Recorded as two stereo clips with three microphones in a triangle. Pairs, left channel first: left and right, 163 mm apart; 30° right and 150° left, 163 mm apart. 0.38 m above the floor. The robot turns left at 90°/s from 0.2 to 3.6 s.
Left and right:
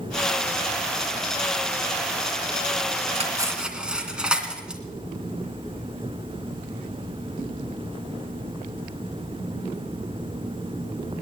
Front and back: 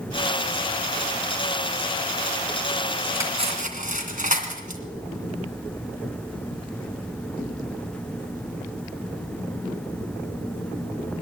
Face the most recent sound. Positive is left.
turn(degrees=-175)